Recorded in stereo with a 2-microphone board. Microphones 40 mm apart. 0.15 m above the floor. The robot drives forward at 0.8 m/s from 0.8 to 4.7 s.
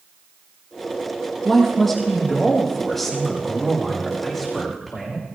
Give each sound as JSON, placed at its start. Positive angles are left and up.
{"t": 1.4, "sound": "a man speaking", "side_deg": 5, "distance_m": 4.0}